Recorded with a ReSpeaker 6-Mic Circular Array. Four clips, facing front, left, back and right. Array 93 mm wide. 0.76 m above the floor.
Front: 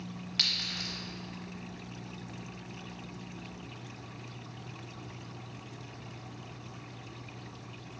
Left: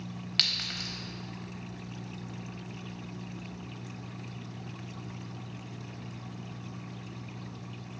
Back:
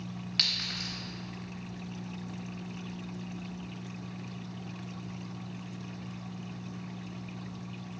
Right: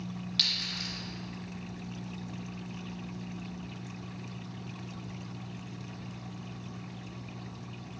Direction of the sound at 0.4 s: 100° left.